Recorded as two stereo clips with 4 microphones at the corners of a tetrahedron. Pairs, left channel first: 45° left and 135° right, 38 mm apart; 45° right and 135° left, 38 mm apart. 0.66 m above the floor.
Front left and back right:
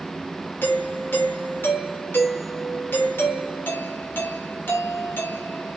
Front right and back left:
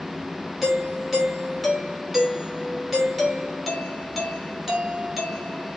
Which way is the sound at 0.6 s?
50° left.